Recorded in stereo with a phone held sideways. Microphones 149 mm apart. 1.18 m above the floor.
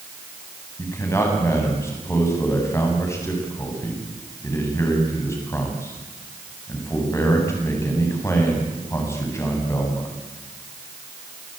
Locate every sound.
0.8 s a man speaking: 20° left (ahead or behind), 8.5 m